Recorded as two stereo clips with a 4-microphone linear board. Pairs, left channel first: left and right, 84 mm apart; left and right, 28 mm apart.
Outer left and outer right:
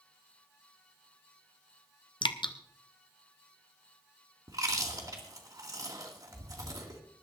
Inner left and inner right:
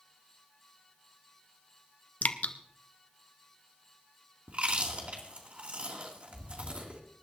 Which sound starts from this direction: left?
Dripping, at 2.2 s.